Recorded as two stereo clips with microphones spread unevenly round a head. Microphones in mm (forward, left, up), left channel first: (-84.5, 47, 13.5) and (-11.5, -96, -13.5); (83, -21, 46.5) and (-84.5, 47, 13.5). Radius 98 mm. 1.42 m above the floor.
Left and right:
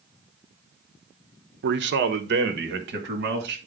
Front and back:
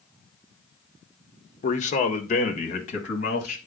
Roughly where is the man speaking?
Right.